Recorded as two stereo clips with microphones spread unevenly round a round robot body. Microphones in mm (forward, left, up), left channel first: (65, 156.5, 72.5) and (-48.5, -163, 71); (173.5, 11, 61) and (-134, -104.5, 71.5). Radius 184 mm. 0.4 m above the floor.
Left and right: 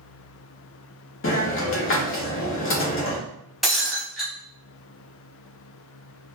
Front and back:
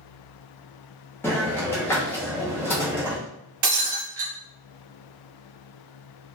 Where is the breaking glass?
160° left, 0.9 m.